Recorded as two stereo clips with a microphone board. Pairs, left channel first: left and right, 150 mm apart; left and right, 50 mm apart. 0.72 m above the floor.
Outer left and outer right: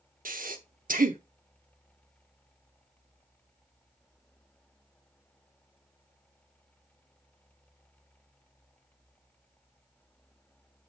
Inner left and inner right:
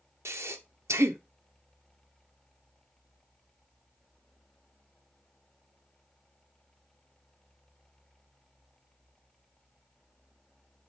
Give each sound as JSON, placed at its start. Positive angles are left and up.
{"t": 0.2, "sound": "breathing", "side_deg": -75, "distance_m": 0.8}